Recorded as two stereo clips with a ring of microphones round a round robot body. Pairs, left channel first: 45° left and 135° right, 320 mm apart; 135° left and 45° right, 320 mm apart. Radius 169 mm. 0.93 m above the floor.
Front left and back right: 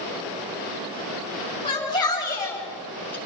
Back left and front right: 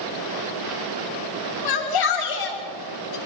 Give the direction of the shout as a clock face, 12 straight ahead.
8 o'clock.